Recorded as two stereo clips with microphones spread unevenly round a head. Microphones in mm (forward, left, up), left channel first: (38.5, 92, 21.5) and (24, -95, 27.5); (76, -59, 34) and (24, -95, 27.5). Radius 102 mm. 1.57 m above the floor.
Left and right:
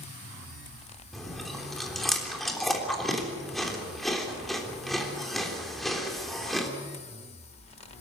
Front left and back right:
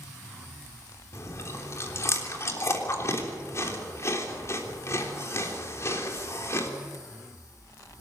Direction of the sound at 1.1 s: 5° right.